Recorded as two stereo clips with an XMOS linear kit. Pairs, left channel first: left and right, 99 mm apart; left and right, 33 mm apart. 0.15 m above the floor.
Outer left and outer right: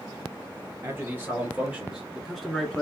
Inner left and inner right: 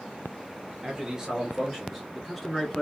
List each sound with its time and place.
0.8 s a man speaking: 25° right (ahead or behind), 2.5 m; by 2.8 s 10° left (ahead or behind), 1.6 m